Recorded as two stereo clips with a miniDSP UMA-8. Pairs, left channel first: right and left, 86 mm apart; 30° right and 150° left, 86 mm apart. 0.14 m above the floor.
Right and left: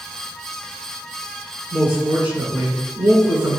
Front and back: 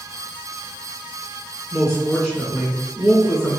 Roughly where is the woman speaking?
Ahead left.